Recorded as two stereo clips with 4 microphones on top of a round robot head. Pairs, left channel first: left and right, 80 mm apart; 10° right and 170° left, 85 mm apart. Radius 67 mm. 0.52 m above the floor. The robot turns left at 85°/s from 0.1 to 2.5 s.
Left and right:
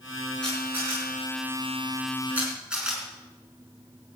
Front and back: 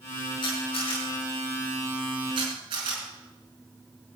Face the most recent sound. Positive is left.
turn(degrees=-170)